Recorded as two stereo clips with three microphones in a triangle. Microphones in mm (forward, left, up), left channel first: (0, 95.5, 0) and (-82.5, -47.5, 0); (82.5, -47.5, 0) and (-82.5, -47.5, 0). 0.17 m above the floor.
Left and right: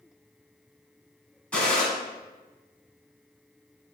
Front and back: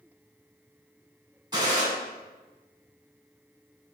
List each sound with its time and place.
1.5 s a gunshot: 140° left, 1.4 m